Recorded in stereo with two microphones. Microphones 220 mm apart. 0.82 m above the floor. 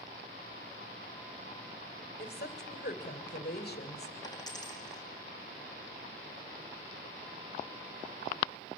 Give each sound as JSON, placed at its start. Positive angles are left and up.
{"t": 2.2, "sound": "a woman speaking", "side_deg": 45, "distance_m": 3.0}
{"t": 4.2, "sound": "a dropped coin", "side_deg": 20, "distance_m": 4.5}